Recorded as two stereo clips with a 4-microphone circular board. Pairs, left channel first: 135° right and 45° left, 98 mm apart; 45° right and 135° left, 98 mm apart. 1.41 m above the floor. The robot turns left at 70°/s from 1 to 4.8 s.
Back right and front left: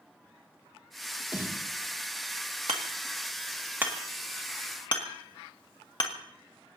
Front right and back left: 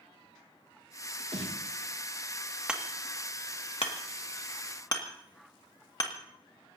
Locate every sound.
1.3 s a snare drum: 120° left, 2.5 m; by 1.7 s 95° left, 2.5 m
2.7 s hammering: 55° left, 1.9 m; by 6.1 s 95° right, 1.9 m